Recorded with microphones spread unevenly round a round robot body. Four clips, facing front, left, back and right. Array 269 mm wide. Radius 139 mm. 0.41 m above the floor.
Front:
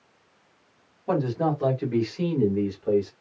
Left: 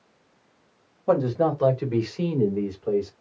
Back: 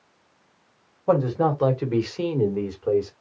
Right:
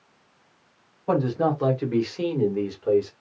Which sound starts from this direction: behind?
A man speaking, at 1.1 s.